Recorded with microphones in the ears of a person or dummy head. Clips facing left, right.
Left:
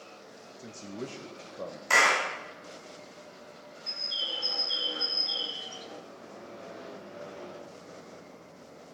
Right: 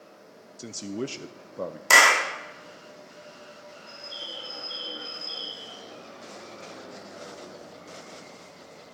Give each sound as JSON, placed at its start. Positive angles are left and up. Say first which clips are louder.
{"t": 0.6, "sound": "a man speaking", "louder": "right 7 dB", "side_deg": -65, "distance_m": 0.6}
{"t": 1.9, "sound": "a clap", "louder": "right 4 dB", "side_deg": -70, "distance_m": 2.0}
{"t": 3.9, "sound": "a bird", "louder": "left 2 dB", "side_deg": 70, "distance_m": 0.6}